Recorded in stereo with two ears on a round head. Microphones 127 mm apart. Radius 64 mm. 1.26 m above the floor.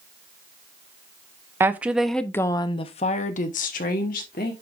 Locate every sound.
1.6 s a woman speaking: 15° right (ahead or behind), 0.8 m; by 4.5 s 65° left (ahead or behind), 1.4 m